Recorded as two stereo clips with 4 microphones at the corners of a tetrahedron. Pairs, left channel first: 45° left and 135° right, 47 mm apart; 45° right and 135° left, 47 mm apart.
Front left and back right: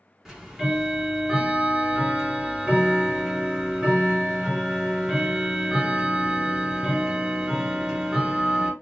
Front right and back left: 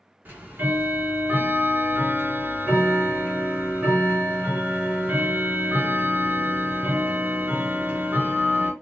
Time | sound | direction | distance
0.2 | ticking | 150° left | 1.0 m